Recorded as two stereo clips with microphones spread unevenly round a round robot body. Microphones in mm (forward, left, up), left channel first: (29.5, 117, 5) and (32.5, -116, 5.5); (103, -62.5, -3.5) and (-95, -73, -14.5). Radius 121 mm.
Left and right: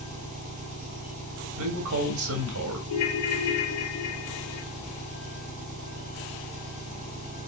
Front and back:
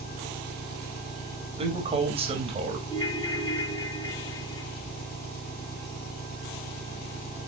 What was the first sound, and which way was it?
An engine running, 35° right.